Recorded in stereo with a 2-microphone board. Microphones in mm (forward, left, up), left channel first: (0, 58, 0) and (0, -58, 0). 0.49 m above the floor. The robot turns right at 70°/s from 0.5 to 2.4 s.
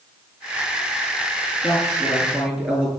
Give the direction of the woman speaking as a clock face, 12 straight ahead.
8 o'clock.